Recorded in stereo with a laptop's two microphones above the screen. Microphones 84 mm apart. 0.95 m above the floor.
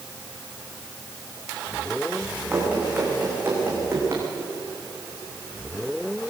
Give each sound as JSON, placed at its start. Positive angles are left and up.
{"t": 2.5, "sound": "running footsteps", "side_deg": -15, "distance_m": 6.0}